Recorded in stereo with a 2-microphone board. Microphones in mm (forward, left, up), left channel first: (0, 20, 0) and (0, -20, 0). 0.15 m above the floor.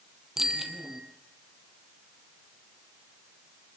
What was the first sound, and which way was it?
A bicycle bell, 10° right (ahead or behind).